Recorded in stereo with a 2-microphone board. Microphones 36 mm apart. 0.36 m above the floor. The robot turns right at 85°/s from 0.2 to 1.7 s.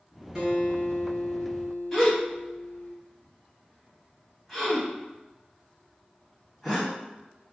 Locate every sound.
0.3 s a guitar: 5° right, 1.7 m; by 2.9 s 110° left, 1.7 m
1.9 s a gasp: 10° left (ahead or behind), 1.7 m